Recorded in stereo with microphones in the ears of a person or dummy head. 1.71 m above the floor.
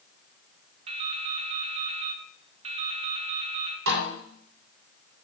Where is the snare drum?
85° right, 5.5 m.